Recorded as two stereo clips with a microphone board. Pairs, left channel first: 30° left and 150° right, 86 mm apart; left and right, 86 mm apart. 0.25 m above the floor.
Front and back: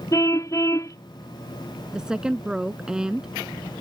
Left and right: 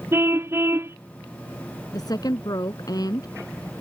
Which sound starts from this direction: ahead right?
A car horn, at 0.1 s.